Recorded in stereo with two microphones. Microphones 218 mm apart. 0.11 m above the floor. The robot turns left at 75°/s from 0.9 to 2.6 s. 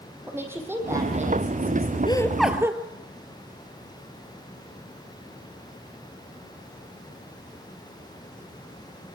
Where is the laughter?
25° left, 1.8 m; by 2.8 s 15° right, 1.8 m.